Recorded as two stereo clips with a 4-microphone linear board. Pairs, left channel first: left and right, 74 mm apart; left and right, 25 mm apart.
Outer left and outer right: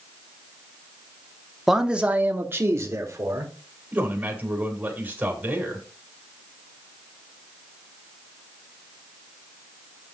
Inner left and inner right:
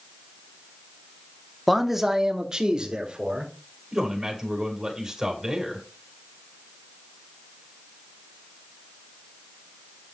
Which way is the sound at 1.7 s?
Centre (ahead or behind).